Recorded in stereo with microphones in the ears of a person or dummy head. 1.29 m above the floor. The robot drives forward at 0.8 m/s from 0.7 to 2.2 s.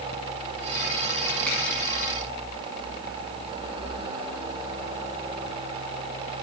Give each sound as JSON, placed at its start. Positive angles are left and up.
{"t": 1.5, "sound": "a finger snap", "side_deg": 10, "distance_m": 1.5}